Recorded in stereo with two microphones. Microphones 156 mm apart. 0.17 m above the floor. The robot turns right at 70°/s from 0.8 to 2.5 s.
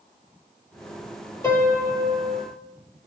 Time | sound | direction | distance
1.4 | a piano | 165° left | 2.5 m